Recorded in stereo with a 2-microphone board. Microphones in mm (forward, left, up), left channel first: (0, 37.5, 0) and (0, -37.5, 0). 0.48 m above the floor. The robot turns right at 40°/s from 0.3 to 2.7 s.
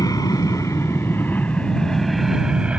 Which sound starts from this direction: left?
An aircraft, at 0.0 s.